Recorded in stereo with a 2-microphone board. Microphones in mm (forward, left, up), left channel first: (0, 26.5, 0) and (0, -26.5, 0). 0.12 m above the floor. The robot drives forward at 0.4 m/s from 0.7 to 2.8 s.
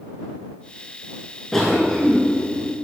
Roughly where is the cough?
Centre.